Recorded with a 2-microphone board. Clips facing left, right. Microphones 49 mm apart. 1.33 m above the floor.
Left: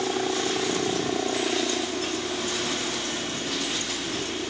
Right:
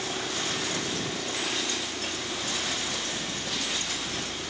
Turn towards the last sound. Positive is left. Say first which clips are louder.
# left 6 dB
turn(degrees=45)  # may be behind; listen again after turning